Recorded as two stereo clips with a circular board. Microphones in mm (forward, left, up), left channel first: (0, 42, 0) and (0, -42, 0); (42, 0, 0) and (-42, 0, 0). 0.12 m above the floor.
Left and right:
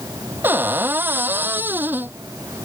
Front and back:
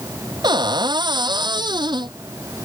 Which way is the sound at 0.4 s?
155° right.